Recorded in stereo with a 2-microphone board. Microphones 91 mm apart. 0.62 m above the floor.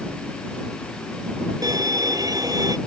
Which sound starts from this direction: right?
A violin, at 1.6 s.